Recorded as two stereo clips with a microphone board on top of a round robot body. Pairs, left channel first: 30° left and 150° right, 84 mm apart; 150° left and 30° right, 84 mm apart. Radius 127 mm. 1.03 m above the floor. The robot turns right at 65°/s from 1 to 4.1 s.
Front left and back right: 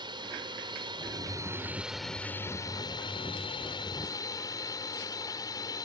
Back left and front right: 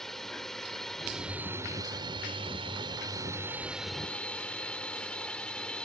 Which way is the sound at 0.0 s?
125° right.